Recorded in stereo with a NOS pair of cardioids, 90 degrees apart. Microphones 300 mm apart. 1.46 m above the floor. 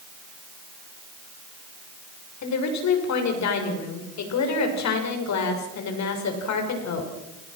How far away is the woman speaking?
About 6.5 m.